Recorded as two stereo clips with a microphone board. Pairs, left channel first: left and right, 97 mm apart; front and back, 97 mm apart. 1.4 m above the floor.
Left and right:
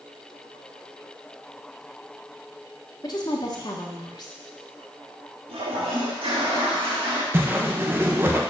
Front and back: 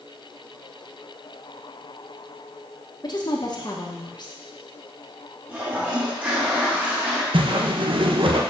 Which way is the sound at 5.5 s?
110° right.